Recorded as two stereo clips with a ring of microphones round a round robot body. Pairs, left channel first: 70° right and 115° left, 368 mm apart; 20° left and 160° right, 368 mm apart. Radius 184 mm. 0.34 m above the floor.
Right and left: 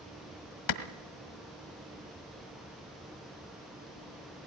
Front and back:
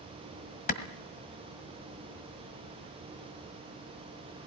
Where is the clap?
45° right, 1.6 m.